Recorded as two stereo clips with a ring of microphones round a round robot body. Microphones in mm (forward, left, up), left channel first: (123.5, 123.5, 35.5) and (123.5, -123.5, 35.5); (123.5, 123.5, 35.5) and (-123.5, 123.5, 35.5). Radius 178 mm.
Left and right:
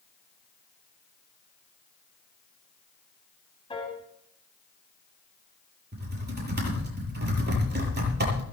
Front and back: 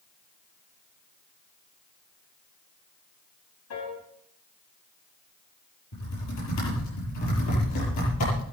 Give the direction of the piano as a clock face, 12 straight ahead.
11 o'clock.